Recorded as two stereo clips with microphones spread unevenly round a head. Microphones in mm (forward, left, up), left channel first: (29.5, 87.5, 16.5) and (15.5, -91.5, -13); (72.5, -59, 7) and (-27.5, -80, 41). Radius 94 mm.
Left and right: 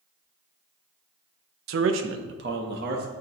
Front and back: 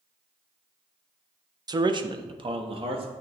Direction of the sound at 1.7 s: 110° right.